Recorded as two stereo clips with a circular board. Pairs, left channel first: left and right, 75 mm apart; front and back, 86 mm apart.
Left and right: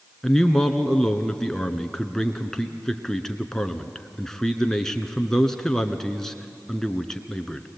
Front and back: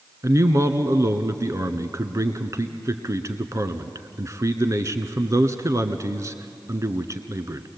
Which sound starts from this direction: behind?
A man speaking, at 0.2 s.